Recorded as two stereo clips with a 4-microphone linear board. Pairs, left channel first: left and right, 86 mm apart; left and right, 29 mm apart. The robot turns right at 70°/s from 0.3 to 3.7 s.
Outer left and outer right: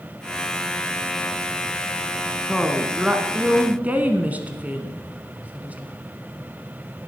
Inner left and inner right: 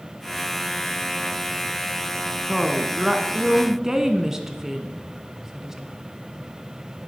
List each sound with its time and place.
2.5 s a woman speaking: 5° left (ahead or behind), 1.1 m; by 5.9 s 20° right (ahead or behind), 1.1 m